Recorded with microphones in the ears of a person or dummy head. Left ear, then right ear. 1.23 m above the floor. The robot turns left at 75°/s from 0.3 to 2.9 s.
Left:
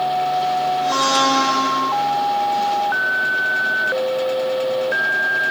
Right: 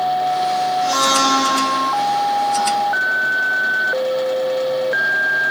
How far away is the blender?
About 1.4 m.